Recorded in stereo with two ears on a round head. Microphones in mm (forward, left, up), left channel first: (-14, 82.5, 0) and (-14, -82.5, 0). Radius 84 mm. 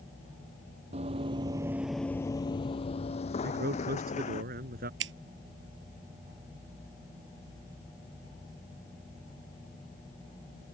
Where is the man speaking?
55° right (ahead or behind).